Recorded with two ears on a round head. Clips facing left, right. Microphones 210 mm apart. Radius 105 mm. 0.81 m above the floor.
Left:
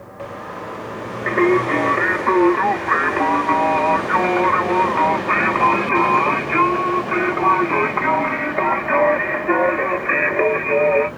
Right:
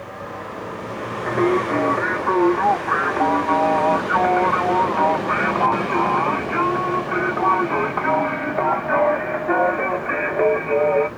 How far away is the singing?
About 0.7 m.